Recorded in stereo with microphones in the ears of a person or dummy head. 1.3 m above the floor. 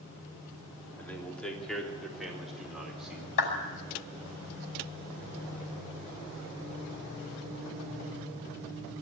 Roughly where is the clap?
Left.